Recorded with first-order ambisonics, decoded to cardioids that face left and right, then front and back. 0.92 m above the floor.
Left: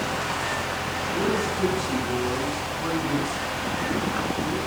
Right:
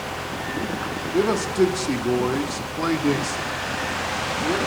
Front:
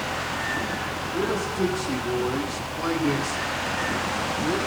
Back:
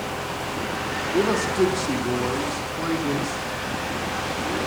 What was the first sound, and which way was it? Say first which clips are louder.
A man speaking: right 6 dB, back 5 dB; 125° right.